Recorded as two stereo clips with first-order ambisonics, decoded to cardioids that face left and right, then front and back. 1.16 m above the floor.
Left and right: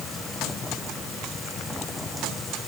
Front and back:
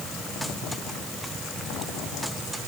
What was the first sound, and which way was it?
Only background noise.